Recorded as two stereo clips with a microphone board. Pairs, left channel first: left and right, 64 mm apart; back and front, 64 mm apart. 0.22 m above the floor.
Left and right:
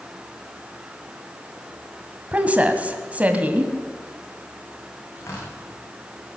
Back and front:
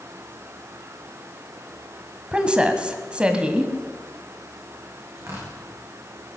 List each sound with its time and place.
2.3 s a woman speaking: 55° right, 1.6 m
5.2 s tearing paper: 45° left, 9 m